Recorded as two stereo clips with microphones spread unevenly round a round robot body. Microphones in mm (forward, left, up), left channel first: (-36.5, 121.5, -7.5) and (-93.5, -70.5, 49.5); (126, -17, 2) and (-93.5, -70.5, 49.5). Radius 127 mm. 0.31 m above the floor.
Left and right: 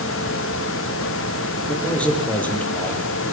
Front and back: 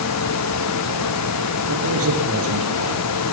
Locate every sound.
1.7 s a man speaking: 155° left, 9.5 m